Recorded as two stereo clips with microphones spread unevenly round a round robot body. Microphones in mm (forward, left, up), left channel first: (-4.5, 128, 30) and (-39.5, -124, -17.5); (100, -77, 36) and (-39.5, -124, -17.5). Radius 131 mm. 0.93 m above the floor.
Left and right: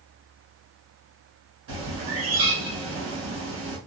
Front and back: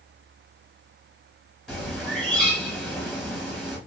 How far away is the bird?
About 1.6 m.